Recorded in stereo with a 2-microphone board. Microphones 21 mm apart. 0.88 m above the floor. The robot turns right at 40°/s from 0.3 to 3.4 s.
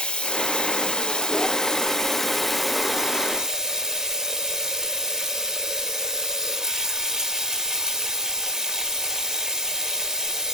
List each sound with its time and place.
0.0 s running water: 90° left, 1.1 m; by 10.6 s 150° right, 1.1 m